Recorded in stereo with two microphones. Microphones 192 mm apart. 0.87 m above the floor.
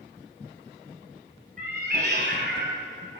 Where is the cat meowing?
45° right (ahead or behind), 1.2 m; by 3.2 s 75° right (ahead or behind), 2 m.